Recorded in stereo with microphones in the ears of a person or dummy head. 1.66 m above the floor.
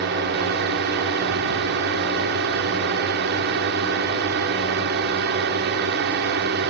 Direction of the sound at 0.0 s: 55° right (ahead or behind).